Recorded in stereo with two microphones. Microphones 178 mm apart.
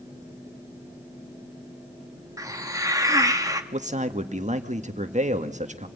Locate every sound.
2.4 s a hiss: 20° right (ahead or behind), 1.6 m
3.7 s a man speaking: 40° right (ahead or behind), 1.6 m